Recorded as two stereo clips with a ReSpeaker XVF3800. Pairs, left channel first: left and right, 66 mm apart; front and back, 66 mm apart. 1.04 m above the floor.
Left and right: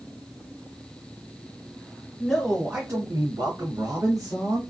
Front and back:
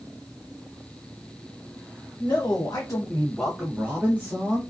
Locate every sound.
2.2 s a man speaking: straight ahead, 0.9 m; by 4.6 s 125° right, 1.3 m